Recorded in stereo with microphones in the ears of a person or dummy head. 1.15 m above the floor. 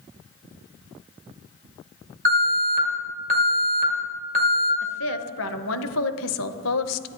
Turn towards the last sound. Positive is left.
turn(degrees=70)  # may be behind; listen again after turning